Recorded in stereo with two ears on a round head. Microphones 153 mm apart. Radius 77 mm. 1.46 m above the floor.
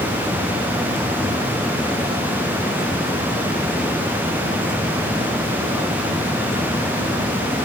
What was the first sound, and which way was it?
Only background noise.